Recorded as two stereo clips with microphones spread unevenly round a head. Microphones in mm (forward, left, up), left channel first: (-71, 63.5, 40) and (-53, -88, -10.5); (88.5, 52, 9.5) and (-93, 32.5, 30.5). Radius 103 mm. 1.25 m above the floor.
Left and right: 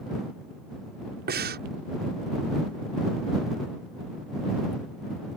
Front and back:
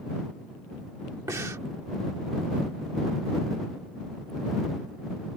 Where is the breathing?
95° right.